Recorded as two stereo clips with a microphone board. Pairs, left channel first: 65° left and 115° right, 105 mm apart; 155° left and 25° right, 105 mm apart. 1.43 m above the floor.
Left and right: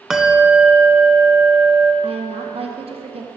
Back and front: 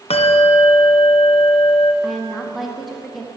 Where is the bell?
160° left, 0.7 m.